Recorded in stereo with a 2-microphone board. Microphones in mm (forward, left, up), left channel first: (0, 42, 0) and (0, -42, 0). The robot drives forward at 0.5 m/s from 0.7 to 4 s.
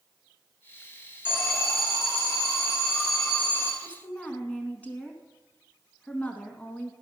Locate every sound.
1.2 s an alarm: 30° left (ahead or behind), 2.5 m
3.8 s a woman speaking: 20° left (ahead or behind), 1.1 m; by 6.9 s 15° left (ahead or behind), 1.2 m